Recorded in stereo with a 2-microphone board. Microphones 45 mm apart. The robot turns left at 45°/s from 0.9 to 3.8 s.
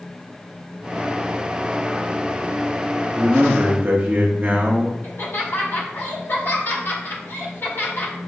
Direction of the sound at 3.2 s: 30° right (ahead or behind).